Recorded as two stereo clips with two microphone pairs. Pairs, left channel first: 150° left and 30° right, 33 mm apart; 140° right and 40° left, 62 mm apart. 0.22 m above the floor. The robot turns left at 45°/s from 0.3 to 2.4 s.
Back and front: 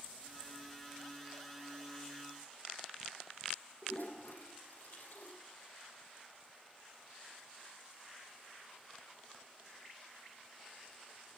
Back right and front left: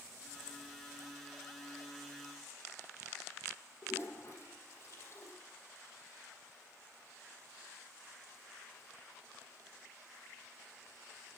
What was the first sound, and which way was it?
A toilet flushing, 170° left.